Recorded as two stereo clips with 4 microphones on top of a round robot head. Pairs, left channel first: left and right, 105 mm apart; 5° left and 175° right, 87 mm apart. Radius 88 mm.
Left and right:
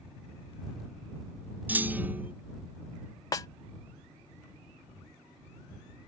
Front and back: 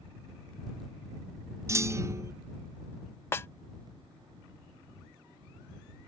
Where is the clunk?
150° right.